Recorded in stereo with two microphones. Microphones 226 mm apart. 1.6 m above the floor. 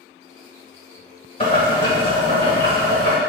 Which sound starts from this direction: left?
Boiling, at 1.4 s.